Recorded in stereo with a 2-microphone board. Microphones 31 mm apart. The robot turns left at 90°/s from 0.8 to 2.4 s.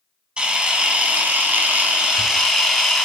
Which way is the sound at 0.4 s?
35° right.